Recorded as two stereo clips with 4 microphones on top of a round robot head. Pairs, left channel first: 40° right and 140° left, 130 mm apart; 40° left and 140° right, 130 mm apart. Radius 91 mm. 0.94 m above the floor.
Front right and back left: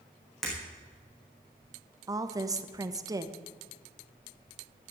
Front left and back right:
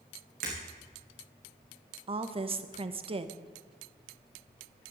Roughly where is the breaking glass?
Behind right.